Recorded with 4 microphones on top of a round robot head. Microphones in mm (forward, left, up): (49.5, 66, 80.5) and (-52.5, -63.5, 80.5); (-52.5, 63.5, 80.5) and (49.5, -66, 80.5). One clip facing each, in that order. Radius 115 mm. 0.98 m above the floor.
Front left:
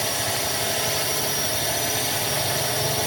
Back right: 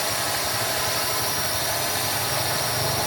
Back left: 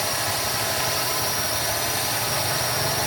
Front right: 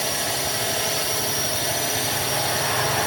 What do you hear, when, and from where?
0.0 s a drone: straight ahead